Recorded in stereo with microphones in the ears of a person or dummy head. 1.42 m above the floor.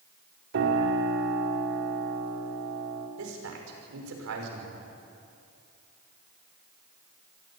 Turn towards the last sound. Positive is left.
turn(degrees=-80)